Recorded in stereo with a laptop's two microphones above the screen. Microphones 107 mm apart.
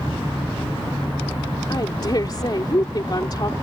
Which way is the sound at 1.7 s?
45° left (ahead or behind).